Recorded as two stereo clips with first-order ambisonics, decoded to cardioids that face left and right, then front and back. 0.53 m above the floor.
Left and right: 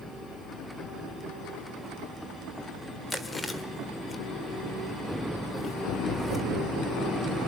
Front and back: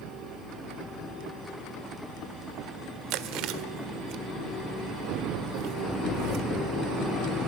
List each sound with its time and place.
3.1 s chewing: 170° left, 1.6 m